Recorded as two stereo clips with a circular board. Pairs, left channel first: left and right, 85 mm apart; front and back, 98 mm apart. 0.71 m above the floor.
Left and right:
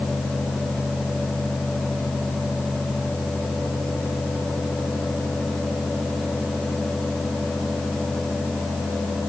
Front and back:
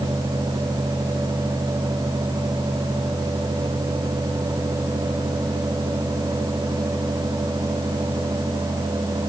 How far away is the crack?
I don't hear a crack.